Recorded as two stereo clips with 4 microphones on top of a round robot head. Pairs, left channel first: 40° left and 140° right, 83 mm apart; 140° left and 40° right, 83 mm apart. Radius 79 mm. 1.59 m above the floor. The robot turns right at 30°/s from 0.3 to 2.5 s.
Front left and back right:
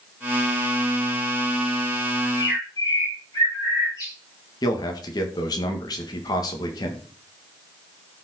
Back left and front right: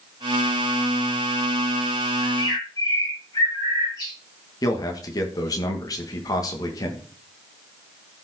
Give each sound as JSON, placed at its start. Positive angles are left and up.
{"t": 2.2, "sound": "a bird", "azimuth_deg": 85, "distance_m": 6.0}
{"t": 4.6, "sound": "a man speaking", "azimuth_deg": 85, "distance_m": 1.6}